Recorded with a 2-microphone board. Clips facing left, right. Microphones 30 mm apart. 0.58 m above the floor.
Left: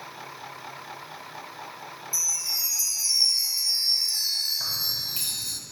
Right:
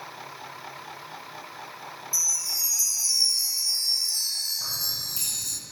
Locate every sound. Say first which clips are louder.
2.1 s a chime: right 1 dB; 30° left (ahead or behind), 0.5 m
4.6 s keys jangling: left 2 dB; 45° left (ahead or behind), 3 m